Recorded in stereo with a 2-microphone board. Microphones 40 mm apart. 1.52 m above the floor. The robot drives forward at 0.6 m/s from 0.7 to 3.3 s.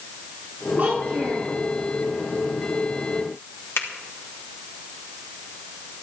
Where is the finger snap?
85° left, 3 m.